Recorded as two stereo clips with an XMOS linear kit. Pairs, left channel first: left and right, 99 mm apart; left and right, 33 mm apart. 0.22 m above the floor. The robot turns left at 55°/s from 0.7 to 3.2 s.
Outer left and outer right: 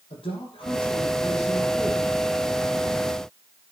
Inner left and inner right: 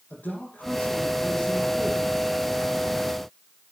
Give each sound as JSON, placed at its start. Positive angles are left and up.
{"t": 0.1, "sound": "a man speaking", "azimuth_deg": 65, "distance_m": 8.5}